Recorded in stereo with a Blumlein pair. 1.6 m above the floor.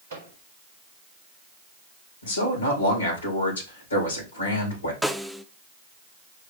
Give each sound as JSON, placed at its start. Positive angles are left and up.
{"t": 0.1, "sound": "a microwave", "azimuth_deg": -70, "distance_m": 4.0}
{"t": 2.2, "sound": "a man speaking", "azimuth_deg": 70, "distance_m": 4.0}
{"t": 5.0, "sound": "a snare drum", "azimuth_deg": 0, "distance_m": 0.7}